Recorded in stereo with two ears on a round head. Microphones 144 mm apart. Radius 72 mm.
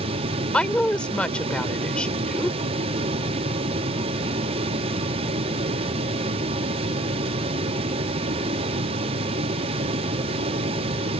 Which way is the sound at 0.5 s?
5° left (ahead or behind).